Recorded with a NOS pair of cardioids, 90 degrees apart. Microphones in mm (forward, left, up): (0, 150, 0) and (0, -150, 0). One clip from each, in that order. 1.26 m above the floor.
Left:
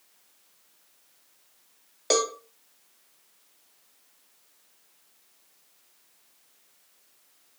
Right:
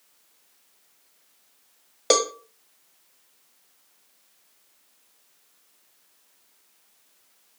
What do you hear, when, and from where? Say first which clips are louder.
2.1 s a cowbell: right 3 dB; 25° right, 0.5 m